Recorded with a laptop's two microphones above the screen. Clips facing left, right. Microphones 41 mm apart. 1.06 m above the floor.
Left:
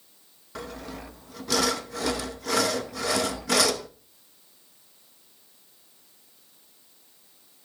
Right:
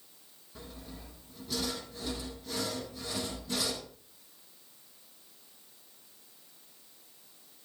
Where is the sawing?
85° left, 0.7 m.